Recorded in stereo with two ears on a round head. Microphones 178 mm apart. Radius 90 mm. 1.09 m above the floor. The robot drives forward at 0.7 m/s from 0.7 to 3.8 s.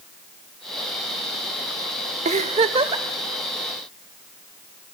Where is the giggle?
35° right (ahead or behind), 0.9 m; by 3.0 s 25° right (ahead or behind), 1.2 m.